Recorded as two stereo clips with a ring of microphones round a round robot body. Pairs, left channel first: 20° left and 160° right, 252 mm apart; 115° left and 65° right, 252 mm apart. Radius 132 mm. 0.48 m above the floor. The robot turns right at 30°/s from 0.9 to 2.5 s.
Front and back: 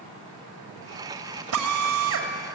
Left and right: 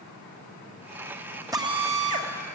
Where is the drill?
145° right, 2.5 m; by 2.3 s 120° right, 2.5 m.